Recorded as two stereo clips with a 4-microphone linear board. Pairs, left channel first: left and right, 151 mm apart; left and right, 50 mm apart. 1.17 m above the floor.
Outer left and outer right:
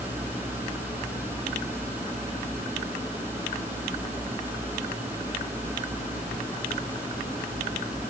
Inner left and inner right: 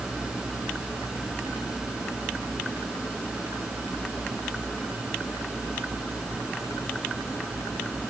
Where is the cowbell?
I don't hear a cowbell.